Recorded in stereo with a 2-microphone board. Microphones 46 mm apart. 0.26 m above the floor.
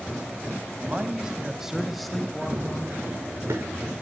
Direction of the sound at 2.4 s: 70° right (ahead or behind).